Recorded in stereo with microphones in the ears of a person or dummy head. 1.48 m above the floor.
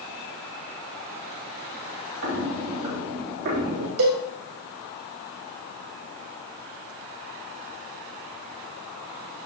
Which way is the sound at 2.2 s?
45° right (ahead or behind).